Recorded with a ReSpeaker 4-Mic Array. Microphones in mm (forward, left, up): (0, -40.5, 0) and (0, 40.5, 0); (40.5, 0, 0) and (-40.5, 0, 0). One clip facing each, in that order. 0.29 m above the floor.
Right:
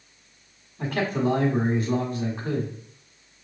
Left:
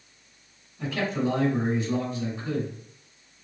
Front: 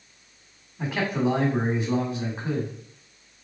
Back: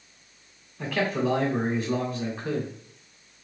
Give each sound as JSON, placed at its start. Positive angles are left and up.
{"t": 0.8, "sound": "a man speaking", "azimuth_deg": -70, "distance_m": 1.7}